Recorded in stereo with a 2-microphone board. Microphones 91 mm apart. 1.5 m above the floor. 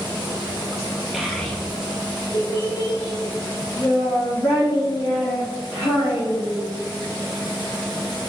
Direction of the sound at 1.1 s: 5° right (ahead or behind).